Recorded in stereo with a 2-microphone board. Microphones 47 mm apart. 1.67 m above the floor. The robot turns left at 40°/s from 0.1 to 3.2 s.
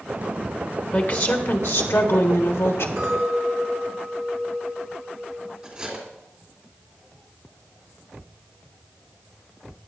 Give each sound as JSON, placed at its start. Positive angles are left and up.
{"t": 0.9, "sound": "a woman speaking", "azimuth_deg": 140, "distance_m": 1.6}
{"t": 3.0, "sound": "a clink", "side_deg": -70, "distance_m": 3.5}
{"t": 5.6, "sound": "cutlery clinking", "side_deg": -25, "distance_m": 3.0}